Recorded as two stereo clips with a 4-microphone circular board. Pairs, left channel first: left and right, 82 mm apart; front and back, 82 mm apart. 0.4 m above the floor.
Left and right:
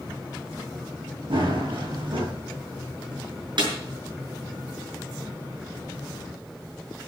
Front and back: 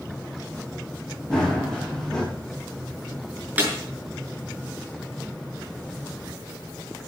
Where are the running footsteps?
85° right, 6 m.